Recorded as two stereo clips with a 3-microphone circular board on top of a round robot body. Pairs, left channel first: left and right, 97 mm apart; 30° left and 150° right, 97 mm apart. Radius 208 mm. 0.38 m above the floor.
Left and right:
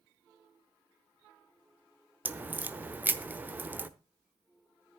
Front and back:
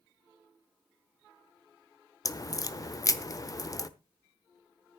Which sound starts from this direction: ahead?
A crack, at 2.2 s.